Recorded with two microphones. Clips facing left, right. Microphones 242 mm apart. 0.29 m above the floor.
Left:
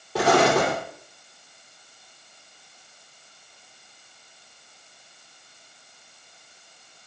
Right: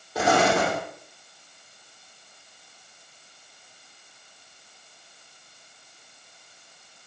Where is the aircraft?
I don't hear an aircraft.